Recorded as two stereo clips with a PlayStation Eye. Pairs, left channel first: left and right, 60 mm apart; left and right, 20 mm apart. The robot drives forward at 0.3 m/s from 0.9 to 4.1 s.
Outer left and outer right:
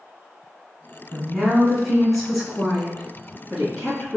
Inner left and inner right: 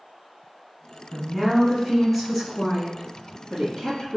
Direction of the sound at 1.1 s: Centre (ahead or behind).